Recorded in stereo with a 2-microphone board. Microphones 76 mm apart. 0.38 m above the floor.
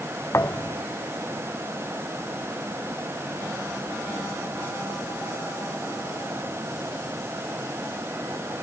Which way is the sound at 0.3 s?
40° left (ahead or behind).